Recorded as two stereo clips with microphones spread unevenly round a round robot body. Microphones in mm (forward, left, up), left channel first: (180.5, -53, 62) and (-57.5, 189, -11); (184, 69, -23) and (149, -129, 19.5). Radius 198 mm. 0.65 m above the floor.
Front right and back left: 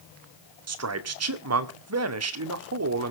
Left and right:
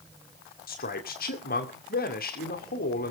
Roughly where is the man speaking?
Left.